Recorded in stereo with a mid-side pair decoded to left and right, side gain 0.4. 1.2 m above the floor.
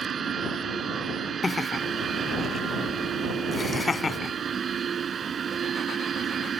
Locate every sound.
0.0 s a machine running: 55° right
1.4 s laughter: 25° left